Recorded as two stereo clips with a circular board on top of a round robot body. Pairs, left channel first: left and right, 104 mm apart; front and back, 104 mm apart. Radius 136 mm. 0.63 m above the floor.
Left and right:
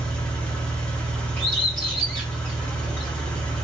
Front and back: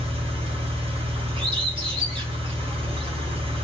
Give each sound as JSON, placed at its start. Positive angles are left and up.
{"t": 0.0, "sound": "an engine running", "azimuth_deg": 170, "distance_m": 1.1}
{"t": 1.4, "sound": "a bird", "azimuth_deg": 170, "distance_m": 1.9}